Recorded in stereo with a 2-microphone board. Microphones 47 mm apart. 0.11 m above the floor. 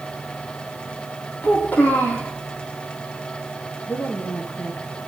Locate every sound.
1.4 s a child speaking: 35° left (ahead or behind), 3.5 m
3.9 s a woman speaking: 35° left (ahead or behind), 2.5 m